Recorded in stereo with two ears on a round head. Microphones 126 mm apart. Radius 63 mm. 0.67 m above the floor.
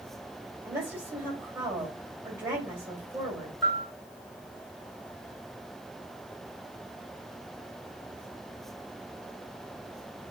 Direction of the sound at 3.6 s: 25° right (ahead or behind).